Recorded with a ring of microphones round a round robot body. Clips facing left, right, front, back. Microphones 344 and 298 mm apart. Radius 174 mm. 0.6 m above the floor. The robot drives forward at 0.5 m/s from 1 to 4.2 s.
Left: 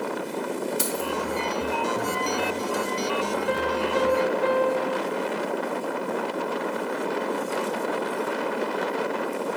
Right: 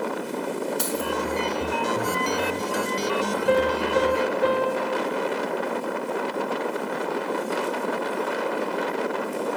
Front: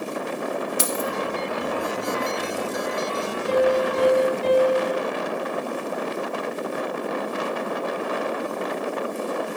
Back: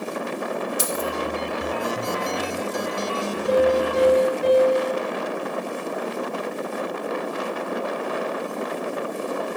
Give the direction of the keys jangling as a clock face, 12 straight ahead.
12 o'clock.